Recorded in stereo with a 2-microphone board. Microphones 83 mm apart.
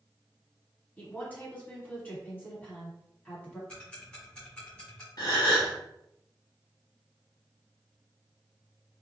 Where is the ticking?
15° left (ahead or behind), 1.3 m.